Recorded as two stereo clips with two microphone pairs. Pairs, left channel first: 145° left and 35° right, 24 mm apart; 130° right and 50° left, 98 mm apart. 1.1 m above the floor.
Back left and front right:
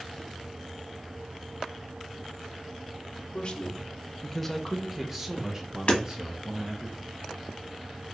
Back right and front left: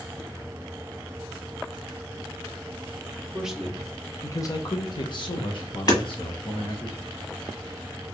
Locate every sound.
3.3 s a man speaking: 125° left, 0.9 m; by 6.9 s 100° right, 2.5 m
5.9 s hammering: straight behind, 1.4 m